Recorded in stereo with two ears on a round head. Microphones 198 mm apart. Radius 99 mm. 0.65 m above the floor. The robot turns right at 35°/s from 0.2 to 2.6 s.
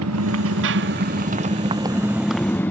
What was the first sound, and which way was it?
A motorcycle, 75° right.